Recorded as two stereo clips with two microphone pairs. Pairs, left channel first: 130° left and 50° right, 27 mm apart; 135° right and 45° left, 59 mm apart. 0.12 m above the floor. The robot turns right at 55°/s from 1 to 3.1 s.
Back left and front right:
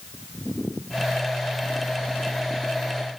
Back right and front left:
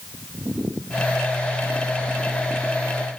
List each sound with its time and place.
Only background noise.